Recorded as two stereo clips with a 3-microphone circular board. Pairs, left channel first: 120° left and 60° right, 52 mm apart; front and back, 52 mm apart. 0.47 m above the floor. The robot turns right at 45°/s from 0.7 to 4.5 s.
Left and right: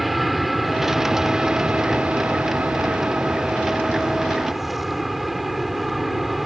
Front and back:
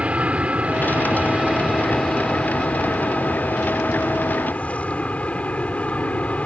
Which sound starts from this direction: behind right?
An aircraft, at 0.0 s.